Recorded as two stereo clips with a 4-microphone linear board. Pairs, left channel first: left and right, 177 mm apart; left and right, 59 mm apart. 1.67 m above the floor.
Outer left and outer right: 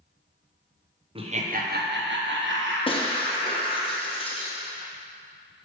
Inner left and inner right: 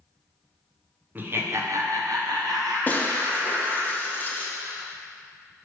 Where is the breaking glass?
30° left (ahead or behind), 0.8 m.